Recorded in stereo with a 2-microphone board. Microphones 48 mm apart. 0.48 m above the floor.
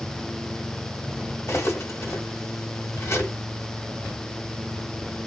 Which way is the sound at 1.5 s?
65° left (ahead or behind).